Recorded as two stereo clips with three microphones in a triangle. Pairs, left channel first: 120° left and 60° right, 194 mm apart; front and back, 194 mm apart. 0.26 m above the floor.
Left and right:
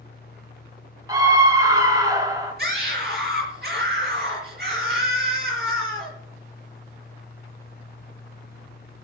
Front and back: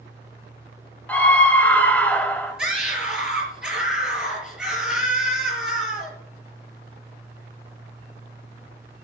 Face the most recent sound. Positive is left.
turn(degrees=-95)